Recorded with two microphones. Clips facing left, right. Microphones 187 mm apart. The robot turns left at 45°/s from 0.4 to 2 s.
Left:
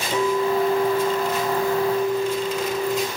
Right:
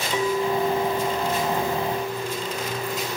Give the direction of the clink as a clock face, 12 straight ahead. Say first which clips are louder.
Left 3 dB; 8 o'clock.